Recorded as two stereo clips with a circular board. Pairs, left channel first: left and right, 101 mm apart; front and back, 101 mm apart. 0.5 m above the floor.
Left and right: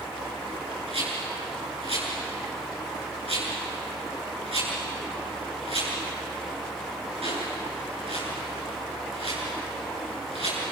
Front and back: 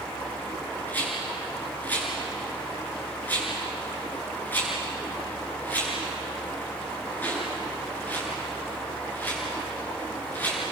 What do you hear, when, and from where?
0.9 s a rattle: 75° right, 9 m